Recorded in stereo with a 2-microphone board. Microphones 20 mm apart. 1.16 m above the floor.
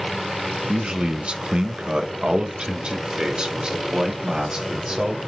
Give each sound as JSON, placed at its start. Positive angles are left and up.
{"t": 0.7, "sound": "a man speaking", "side_deg": -50, "distance_m": 0.7}